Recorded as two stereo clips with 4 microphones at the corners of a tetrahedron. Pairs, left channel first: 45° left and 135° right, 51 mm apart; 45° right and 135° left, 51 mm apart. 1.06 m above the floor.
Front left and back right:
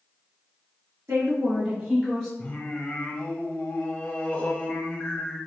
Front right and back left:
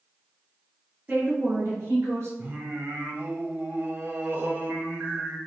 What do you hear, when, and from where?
1.1 s a woman speaking: 155° right, 1.6 m; by 2.3 s 140° left, 1.4 m
2.4 s singing: 100° left, 1.1 m